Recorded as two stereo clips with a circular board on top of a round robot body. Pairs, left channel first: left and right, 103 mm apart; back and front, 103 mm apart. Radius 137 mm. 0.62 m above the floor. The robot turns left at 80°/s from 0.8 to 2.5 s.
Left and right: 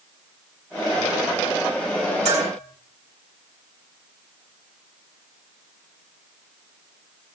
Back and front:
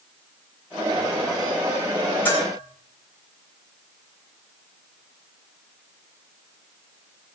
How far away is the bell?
About 7.5 m.